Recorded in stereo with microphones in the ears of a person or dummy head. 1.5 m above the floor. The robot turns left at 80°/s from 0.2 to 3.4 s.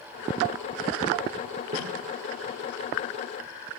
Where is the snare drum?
45° right (ahead or behind), 2.5 m; by 1.9 s 35° right (ahead or behind), 2.5 m.